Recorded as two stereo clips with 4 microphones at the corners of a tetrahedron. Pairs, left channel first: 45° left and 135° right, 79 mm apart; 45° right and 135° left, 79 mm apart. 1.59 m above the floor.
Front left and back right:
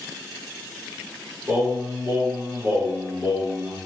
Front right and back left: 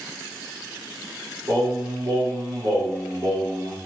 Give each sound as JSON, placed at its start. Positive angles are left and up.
{"t": 1.5, "sound": "singing", "azimuth_deg": 160, "distance_m": 1.8}